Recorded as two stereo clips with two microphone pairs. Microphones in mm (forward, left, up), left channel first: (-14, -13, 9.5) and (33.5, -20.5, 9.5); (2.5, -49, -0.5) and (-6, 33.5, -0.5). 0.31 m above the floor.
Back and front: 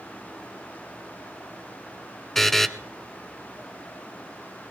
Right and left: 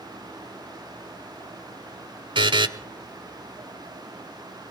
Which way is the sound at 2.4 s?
85° left.